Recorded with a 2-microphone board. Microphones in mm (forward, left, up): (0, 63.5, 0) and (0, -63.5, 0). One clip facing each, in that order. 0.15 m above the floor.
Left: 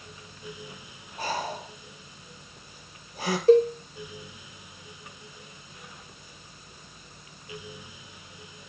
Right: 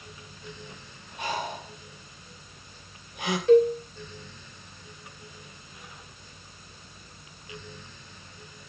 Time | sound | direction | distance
1.2 | breathing | 40° left (ahead or behind) | 4 m
3.5 | a cowbell | 35° left (ahead or behind) | 3 m